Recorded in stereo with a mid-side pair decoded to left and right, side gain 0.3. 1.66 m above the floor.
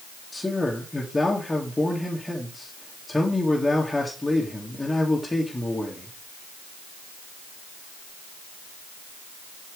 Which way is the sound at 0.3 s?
25° left.